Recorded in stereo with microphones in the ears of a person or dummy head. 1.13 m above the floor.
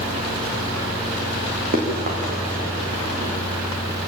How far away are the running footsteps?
About 5.5 m.